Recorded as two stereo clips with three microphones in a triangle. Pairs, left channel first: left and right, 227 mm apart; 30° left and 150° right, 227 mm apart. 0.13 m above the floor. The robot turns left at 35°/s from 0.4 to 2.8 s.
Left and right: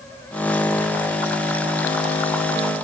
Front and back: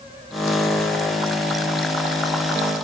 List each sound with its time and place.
Only background noise.